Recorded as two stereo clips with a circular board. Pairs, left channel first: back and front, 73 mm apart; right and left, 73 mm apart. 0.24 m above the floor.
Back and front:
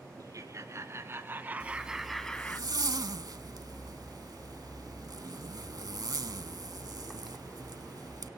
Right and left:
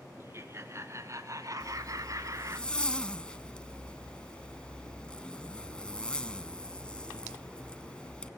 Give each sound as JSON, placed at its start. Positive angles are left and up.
{"t": 0.2, "sound": "laughter", "azimuth_deg": 35, "distance_m": 3.0}
{"t": 1.6, "sound": "a zipper", "azimuth_deg": -15, "distance_m": 0.8}